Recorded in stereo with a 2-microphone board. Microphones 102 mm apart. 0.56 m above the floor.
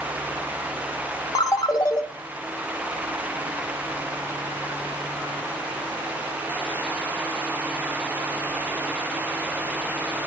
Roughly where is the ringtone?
Left.